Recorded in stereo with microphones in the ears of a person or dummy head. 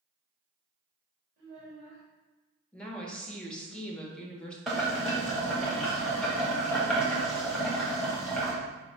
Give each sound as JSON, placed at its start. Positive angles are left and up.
{"t": 1.4, "sound": "a child speaking", "side_deg": -45, "distance_m": 1.6}
{"t": 2.7, "sound": "a woman speaking", "side_deg": 5, "distance_m": 0.8}
{"t": 4.7, "sound": "boiling", "side_deg": 0, "distance_m": 0.9}